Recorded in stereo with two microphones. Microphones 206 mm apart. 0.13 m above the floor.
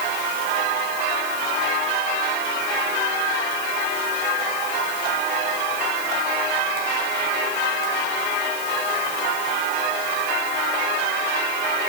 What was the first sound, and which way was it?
Only background noise.